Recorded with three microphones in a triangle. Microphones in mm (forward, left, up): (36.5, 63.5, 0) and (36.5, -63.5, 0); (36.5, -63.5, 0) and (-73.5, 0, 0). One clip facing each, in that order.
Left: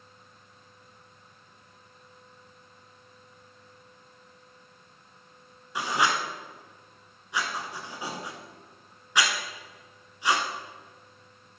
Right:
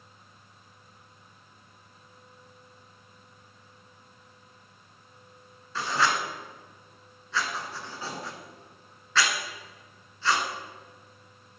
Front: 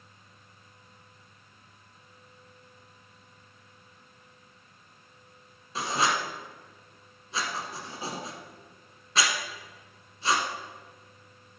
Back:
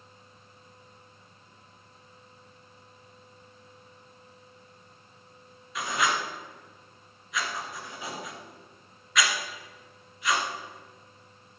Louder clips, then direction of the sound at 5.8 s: Even, front 1 dB; 20° left.